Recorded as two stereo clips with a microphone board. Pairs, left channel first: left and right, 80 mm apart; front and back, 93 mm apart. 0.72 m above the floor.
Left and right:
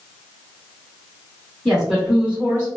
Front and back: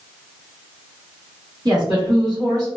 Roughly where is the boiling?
I don't hear boiling.